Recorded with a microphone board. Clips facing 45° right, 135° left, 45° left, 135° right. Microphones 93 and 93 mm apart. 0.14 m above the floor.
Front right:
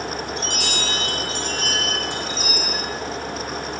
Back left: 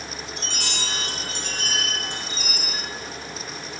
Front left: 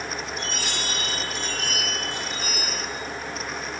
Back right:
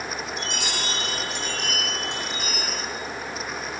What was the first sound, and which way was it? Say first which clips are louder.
A chime: front right 6 dB, back right 1 dB; 125° right.